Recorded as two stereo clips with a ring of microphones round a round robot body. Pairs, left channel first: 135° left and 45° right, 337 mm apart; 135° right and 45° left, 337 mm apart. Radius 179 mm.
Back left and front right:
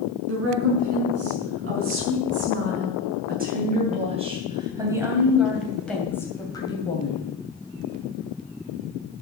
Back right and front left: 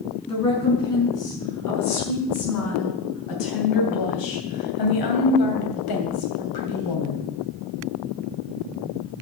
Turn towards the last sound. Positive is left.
turn(degrees=-155)